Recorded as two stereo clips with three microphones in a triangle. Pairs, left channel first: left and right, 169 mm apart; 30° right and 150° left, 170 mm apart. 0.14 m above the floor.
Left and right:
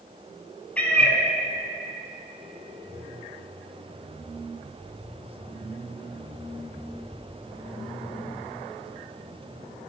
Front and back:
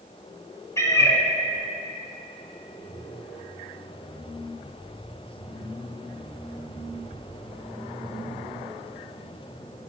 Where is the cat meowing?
20° left, 0.7 m.